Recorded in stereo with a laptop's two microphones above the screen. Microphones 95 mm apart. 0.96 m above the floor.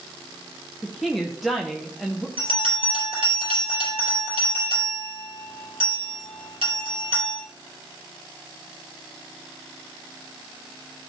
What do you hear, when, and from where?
0.8 s a woman speaking: centre (ahead or behind), 0.6 m
2.4 s a bell: 65° right (ahead or behind), 4.5 m